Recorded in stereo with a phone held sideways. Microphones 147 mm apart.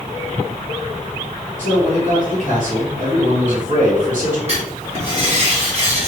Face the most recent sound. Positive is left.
turn(degrees=-45)  # may be behind; listen again after turning